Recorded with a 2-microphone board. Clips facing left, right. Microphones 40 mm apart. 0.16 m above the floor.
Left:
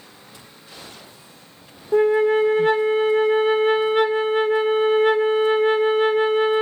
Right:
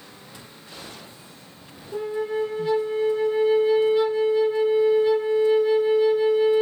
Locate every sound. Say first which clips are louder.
1.9 s a flute: left 10 dB; 65° left (ahead or behind), 0.5 m